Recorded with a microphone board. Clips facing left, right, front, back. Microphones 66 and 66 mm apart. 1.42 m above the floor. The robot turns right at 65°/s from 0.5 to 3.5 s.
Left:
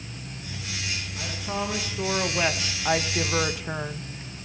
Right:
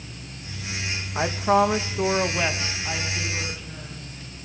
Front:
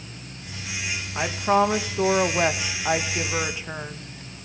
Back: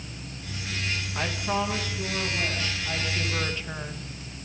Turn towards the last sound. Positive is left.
turn(degrees=75)